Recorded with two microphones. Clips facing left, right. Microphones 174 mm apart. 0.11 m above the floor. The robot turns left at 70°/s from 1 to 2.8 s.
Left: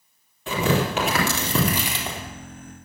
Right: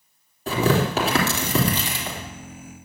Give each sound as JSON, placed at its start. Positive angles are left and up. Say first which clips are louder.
{"t": 0.5, "sound": "tearing paper", "louder": "right 2 dB", "side_deg": -40, "distance_m": 3.5}